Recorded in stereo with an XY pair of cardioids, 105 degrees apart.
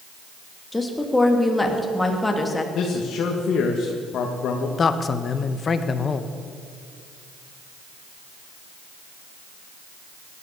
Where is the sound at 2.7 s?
60° left, 1.9 m.